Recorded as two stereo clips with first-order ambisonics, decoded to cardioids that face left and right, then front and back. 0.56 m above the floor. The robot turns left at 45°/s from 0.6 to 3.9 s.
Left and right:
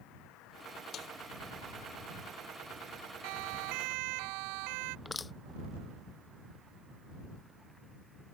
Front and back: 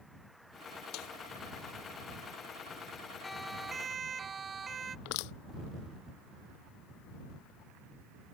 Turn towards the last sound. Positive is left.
turn(degrees=10)